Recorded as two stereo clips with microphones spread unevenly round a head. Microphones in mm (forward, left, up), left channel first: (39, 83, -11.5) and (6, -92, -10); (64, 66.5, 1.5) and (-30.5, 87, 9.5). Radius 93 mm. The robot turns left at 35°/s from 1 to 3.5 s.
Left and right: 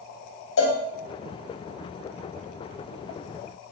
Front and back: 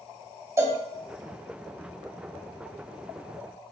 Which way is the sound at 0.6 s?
105° left.